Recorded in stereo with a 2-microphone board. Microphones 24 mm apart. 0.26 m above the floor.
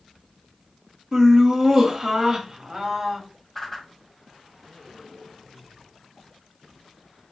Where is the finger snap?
No finger snap in this recording.